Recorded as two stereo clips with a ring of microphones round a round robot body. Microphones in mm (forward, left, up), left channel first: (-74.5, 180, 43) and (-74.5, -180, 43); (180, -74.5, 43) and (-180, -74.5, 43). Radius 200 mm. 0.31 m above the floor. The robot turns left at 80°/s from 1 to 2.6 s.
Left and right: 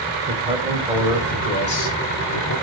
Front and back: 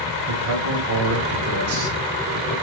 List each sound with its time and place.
0.3 s a man speaking: 160° right, 2 m; by 2.5 s 75° left, 2 m